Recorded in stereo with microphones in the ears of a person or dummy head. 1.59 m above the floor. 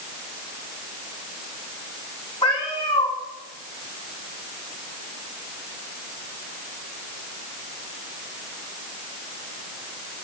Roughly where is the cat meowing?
Left.